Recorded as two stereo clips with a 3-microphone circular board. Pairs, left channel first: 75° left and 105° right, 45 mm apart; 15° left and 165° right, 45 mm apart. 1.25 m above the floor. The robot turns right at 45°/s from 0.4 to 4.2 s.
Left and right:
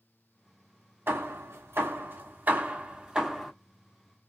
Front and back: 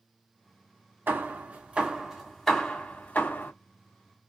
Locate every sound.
1.1 s hammering: 130° right, 1.2 m; by 3.5 s 20° right, 1.2 m